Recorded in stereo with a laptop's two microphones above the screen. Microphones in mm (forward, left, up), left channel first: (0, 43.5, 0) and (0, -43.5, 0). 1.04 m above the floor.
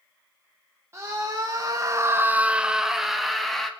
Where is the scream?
30° right (ahead or behind), 1.4 m; by 3.7 s 5° left (ahead or behind), 2.5 m.